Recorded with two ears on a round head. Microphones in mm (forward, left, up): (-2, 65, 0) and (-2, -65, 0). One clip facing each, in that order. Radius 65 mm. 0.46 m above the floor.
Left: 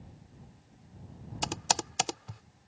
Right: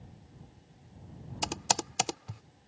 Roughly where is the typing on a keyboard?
Centre.